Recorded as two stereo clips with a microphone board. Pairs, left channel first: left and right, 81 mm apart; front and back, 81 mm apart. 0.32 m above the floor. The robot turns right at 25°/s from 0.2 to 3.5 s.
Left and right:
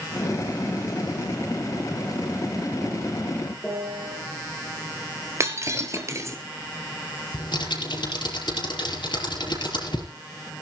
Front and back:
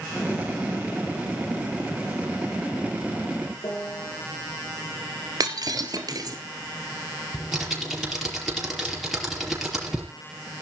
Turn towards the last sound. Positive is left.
turn(degrees=95)